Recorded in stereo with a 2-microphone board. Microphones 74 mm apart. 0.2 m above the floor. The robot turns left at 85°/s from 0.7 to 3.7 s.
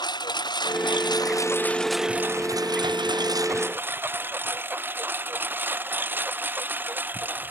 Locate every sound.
0.0 s a lawn mower: 75° left (ahead or behind); by 7.5 s 25° right (ahead or behind)